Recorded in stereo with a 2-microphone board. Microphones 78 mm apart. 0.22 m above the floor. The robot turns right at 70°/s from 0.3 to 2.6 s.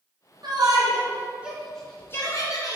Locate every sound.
0.4 s a shout: 65° right (ahead or behind), 2.5 m; by 2.8 s 55° left (ahead or behind), 2.5 m